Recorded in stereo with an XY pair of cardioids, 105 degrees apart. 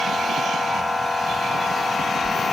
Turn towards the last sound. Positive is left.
turn(degrees=20)